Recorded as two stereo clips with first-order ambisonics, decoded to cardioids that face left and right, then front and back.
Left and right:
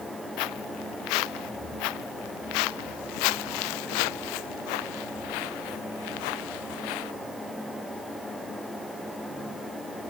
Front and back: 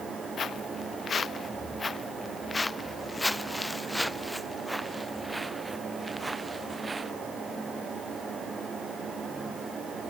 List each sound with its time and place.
0.4 s footsteps: 65° left; by 7.1 s 100° left